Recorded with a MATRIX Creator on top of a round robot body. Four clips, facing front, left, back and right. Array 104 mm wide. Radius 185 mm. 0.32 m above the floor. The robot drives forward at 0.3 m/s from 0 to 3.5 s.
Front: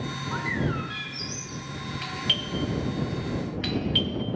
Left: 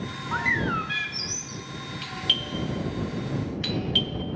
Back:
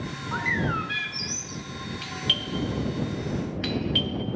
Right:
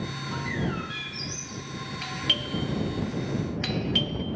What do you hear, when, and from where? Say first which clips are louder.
0.3 s a bird: left 5 dB, back 2 dB; 105° left, 0.6 m; by 1.6 s 140° left, 0.8 m
2.0 s a doorbell: right 1 dB, front 1 dB; 55° right, 1.5 m; by 4.2 s 95° right, 1.5 m